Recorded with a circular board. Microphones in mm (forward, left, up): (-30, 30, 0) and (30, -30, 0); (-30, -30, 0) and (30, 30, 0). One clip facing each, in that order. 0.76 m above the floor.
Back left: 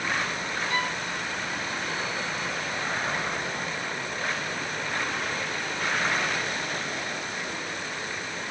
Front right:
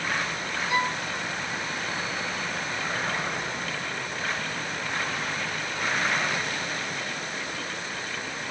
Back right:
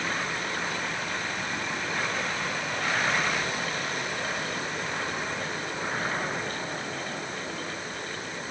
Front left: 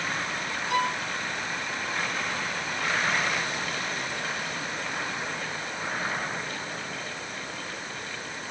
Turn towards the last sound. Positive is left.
turn(degrees=25)